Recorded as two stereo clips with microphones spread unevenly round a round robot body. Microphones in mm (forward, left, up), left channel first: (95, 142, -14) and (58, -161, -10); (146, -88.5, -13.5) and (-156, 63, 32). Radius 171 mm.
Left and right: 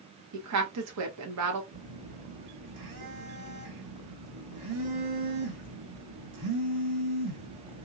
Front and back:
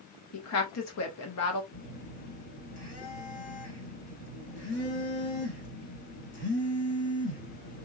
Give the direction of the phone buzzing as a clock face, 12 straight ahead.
3 o'clock.